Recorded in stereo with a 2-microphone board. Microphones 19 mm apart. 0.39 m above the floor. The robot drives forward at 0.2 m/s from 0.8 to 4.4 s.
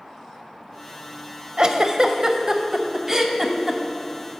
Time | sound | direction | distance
1.6 | a giggle | 40° right (ahead or behind) | 0.5 m